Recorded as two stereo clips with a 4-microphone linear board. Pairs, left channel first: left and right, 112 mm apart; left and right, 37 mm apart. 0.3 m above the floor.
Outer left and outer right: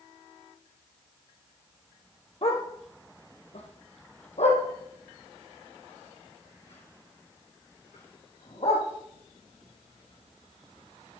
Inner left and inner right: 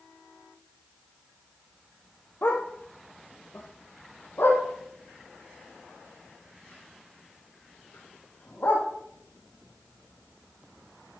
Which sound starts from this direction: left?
A dog barking, at 2.4 s.